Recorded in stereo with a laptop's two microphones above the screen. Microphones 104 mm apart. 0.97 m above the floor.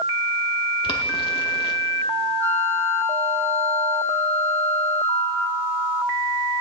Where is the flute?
20° left (ahead or behind), 0.9 m.